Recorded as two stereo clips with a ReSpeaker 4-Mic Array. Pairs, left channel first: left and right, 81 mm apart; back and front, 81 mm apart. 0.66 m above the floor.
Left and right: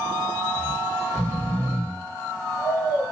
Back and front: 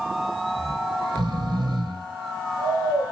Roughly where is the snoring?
Ahead.